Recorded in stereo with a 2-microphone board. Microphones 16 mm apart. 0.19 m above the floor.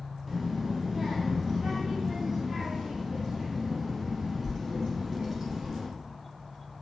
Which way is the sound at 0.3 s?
20° right (ahead or behind).